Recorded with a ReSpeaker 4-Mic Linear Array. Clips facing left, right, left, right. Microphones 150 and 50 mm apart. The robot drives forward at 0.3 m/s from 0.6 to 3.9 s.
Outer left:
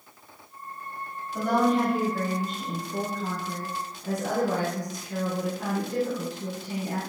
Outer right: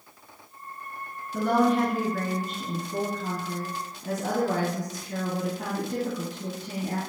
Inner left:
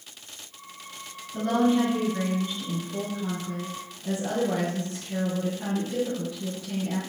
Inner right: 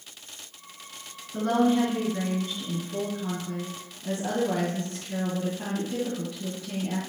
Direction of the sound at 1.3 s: 50° right (ahead or behind).